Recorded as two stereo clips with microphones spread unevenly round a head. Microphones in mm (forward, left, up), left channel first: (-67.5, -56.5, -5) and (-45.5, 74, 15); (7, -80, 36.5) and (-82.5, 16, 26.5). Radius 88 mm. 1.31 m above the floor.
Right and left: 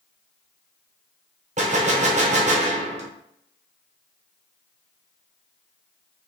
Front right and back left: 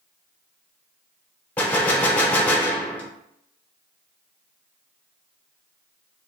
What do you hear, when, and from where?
1.6 s a gunshot: 35° left, 0.7 m